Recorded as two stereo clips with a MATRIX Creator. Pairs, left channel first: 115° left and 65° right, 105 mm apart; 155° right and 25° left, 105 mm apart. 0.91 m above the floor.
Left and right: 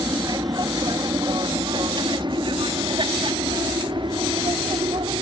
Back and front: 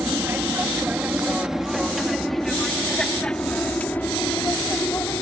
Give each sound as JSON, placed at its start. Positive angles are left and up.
{"t": 0.0, "sound": "an aircraft", "azimuth_deg": -35}